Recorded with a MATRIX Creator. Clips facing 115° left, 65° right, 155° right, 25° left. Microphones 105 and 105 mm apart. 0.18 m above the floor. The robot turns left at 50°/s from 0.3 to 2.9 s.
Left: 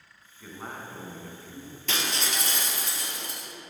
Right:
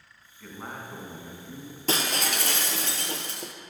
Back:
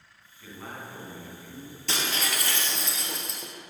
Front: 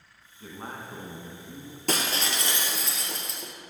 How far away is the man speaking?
About 1.3 m.